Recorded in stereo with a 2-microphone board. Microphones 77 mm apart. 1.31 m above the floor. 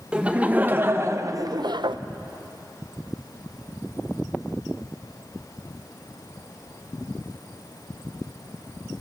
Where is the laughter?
15° right (ahead or behind), 1.4 m; by 2.0 s 80° right, 0.7 m.